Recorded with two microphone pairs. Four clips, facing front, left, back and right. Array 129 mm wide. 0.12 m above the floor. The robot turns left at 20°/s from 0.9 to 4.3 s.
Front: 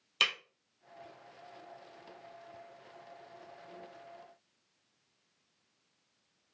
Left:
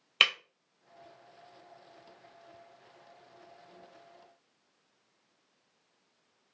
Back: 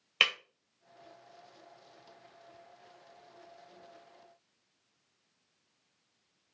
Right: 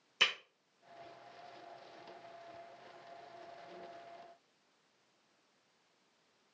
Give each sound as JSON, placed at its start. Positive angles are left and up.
{"t": 0.2, "sound": "breaking glass", "azimuth_deg": 110, "distance_m": 1.0}